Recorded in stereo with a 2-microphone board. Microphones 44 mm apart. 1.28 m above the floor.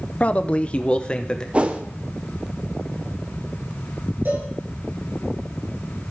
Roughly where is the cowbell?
Right.